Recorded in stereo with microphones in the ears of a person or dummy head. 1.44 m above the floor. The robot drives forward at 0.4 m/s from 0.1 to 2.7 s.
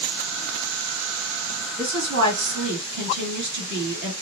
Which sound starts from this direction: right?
A woman speaking, at 1.8 s.